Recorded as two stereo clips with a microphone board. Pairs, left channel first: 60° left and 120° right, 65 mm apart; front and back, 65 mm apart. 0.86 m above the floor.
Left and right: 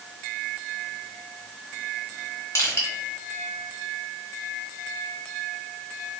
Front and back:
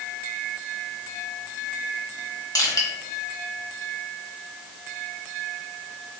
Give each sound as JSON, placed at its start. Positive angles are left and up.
{"t": 2.5, "sound": "crushing", "azimuth_deg": 20, "distance_m": 1.2}